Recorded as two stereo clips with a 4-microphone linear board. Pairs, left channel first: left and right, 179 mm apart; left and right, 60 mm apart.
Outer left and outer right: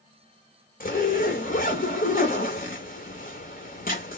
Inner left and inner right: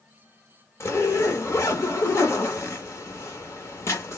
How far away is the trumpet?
I don't hear a trumpet.